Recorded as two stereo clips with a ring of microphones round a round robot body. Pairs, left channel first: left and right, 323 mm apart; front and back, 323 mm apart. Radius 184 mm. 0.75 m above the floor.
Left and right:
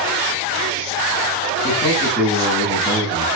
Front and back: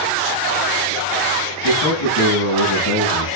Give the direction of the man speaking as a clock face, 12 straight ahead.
12 o'clock.